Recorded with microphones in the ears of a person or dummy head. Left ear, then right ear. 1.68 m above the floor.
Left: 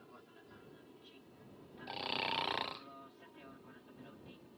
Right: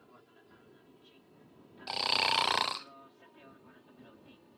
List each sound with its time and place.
0.0 s an aircraft: 5° right (ahead or behind); by 4.6 s 20° right (ahead or behind)
1.9 s snoring: 45° right (ahead or behind)